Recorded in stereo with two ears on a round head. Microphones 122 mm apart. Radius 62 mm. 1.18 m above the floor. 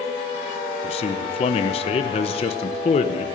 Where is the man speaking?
45° left (ahead or behind), 1.0 m.